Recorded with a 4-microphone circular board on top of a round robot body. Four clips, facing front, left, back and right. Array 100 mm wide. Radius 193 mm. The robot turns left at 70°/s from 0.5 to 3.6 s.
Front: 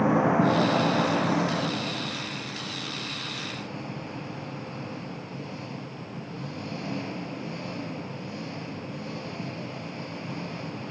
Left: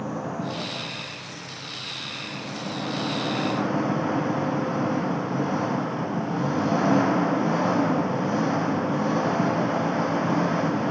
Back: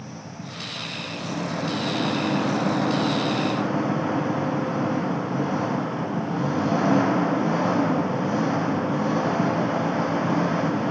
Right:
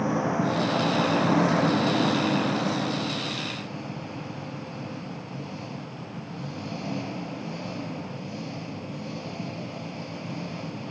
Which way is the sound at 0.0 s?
10° right.